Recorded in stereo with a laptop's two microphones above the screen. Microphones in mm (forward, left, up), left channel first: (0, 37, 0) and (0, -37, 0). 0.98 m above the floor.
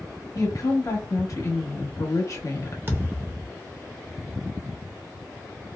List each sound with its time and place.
0.3 s a woman speaking: 50° left (ahead or behind), 1.2 m
2.9 s a thud: 35° right (ahead or behind), 0.7 m